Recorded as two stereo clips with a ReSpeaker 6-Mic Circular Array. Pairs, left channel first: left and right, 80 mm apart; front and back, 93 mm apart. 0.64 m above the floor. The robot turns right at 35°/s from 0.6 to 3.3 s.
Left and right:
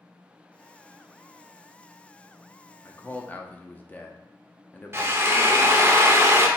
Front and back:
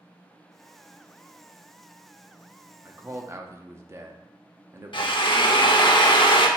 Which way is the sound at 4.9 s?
30° right.